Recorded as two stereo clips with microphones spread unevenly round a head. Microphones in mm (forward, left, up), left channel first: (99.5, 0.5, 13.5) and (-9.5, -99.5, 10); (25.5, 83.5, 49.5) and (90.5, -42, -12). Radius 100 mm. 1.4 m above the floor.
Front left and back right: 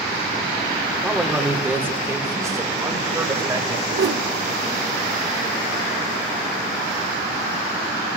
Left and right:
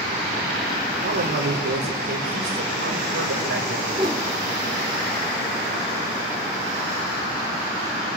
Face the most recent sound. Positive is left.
turn(degrees=-145)